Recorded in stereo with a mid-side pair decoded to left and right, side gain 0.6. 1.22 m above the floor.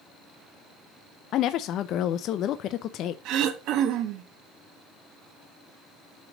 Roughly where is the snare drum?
No snare drum in this recording.